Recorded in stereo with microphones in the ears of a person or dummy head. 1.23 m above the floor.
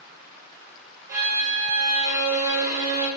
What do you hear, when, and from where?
1.1 s a violin: 20° right (ahead or behind), 3.5 m